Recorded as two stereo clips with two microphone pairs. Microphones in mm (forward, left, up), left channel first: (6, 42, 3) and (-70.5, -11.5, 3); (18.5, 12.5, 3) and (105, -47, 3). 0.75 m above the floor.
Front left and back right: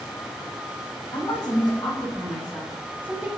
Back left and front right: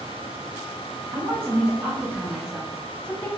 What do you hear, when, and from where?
1.1 s a woman speaking: 25° left, 1.4 m; by 3.3 s 145° right, 0.7 m